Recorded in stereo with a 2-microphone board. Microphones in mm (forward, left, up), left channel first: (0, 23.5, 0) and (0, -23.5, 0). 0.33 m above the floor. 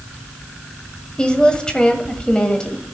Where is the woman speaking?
20° left (ahead or behind), 1.6 m.